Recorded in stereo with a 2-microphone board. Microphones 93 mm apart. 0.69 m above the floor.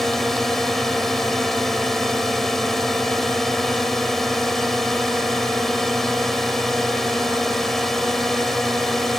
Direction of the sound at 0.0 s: Centre (ahead or behind).